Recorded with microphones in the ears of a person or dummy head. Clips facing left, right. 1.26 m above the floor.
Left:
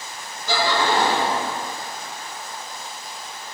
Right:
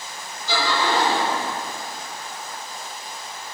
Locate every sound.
0.5 s laughter: 50° left (ahead or behind), 1.9 m